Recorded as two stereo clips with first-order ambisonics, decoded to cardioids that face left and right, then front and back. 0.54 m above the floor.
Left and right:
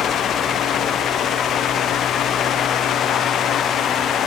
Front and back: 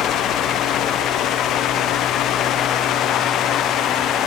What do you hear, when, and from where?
Only background noise.